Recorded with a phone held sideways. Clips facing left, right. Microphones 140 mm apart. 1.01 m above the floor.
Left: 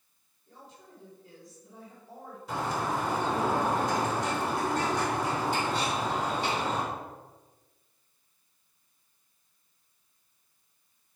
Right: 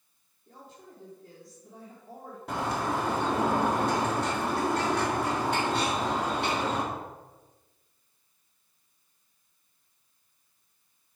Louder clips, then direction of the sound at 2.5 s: Right 1 dB; 70° right (ahead or behind).